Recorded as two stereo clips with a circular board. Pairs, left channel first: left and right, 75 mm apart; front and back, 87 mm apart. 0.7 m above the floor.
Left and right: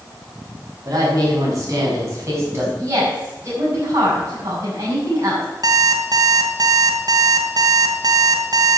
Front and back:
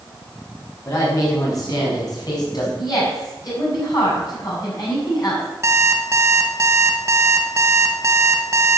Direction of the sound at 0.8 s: 50° right.